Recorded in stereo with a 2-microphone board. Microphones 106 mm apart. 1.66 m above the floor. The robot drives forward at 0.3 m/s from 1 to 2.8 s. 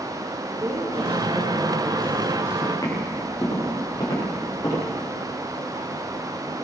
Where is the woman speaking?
30° right (ahead or behind), 5 m; by 2.5 s 25° right (ahead or behind), 5.5 m.